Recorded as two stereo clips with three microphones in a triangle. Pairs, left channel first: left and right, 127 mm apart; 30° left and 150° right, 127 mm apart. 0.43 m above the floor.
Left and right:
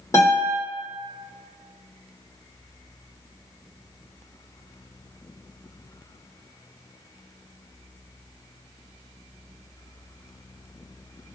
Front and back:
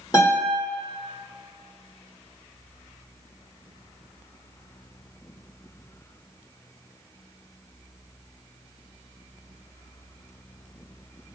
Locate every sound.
0.1 s a guitar: 55° left, 1.1 m